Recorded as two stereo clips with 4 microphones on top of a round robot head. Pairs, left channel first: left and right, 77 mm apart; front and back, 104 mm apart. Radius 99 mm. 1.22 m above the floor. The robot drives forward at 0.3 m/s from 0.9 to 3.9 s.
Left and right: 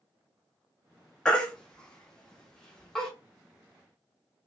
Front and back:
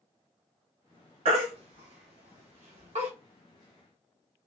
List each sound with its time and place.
1.2 s a baby crying: 165° left, 1.0 m; by 3.1 s 170° left, 1.5 m